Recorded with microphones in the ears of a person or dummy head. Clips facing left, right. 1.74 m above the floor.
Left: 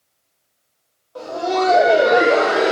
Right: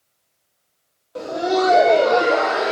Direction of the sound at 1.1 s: 30° right (ahead or behind).